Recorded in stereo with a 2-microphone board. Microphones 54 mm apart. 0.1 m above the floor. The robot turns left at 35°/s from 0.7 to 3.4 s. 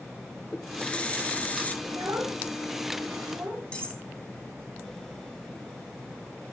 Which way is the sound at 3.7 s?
25° left (ahead or behind).